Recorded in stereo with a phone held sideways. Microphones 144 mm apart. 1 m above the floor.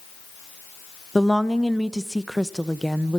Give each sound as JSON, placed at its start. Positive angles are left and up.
{"t": 1.1, "sound": "a woman speaking", "side_deg": 0, "distance_m": 0.9}